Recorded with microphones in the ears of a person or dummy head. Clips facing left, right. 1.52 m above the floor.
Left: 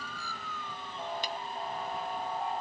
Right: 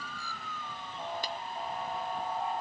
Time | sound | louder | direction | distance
1.2 | a camera shutter | even | 25° left (ahead or behind) | 1.2 m